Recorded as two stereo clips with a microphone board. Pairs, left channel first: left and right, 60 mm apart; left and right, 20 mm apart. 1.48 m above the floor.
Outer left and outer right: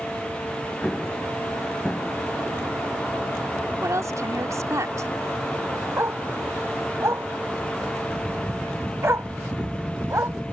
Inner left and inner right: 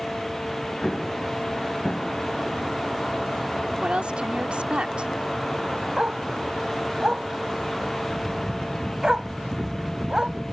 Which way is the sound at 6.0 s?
50° right (ahead or behind).